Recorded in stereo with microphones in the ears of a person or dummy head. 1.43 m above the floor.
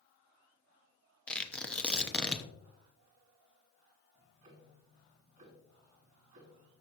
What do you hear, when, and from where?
1.3 s tearing paper: centre (ahead or behind), 0.9 m
4.2 s ticking: 35° right (ahead or behind), 2 m